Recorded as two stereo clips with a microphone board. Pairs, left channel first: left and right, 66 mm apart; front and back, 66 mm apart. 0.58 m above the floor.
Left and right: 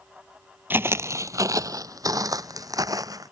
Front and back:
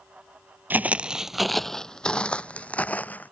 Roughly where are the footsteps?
Behind right.